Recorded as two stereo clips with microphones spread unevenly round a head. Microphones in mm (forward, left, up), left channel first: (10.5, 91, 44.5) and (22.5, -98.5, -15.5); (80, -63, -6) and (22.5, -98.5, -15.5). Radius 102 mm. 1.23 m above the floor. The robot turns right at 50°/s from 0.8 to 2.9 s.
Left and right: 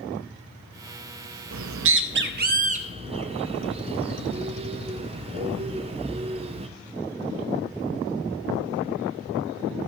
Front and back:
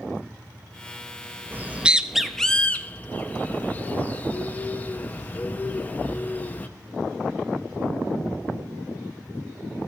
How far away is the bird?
About 0.7 m.